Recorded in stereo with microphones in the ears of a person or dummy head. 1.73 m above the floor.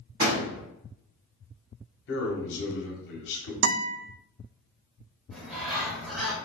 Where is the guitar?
75° right (ahead or behind), 0.6 m.